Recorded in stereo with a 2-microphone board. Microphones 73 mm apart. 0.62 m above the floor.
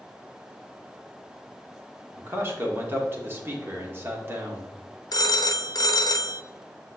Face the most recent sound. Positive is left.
turn(degrees=60)  # may be behind; listen again after turning